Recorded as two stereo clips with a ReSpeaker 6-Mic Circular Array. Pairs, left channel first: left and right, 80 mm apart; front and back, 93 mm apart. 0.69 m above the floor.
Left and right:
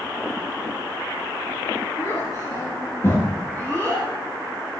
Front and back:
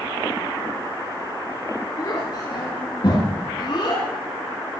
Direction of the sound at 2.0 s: 45° left.